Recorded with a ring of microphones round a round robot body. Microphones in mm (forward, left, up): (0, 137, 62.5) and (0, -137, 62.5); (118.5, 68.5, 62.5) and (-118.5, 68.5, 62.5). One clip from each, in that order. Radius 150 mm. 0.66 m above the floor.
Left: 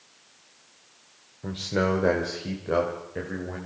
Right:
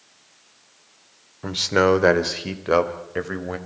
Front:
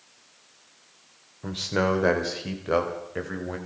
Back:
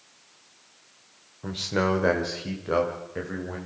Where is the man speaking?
90° right, 2 m; by 3.6 s 70° right, 3.5 m.